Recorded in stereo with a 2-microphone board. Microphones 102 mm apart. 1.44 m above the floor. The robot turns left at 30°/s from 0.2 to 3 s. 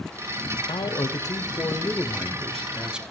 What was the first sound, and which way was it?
A man speaking, 60° left.